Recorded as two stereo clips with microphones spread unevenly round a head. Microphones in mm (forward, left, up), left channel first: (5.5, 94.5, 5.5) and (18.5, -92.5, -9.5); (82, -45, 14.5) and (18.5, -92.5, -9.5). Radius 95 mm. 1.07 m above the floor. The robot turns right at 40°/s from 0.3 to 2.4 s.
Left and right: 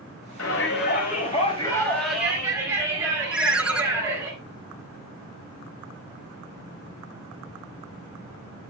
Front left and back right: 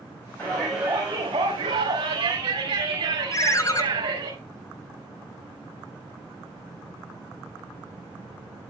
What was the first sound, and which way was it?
A shout, 115° left.